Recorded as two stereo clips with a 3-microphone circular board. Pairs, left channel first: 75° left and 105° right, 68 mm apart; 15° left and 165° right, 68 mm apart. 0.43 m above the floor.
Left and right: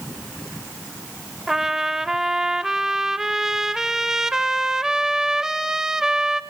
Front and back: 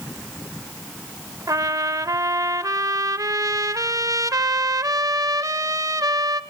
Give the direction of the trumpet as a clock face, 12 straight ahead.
6 o'clock.